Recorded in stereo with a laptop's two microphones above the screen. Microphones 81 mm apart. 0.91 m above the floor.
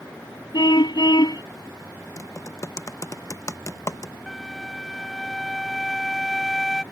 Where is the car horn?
60° left (ahead or behind).